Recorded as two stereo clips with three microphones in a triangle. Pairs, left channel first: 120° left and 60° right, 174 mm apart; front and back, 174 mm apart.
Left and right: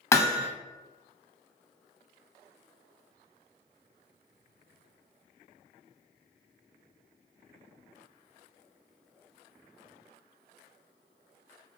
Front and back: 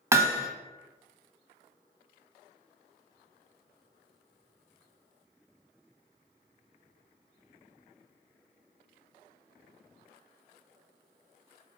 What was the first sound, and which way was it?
Hammering, 150° left.